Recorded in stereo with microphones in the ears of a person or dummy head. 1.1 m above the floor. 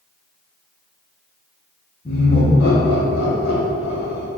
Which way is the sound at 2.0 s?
40° left (ahead or behind).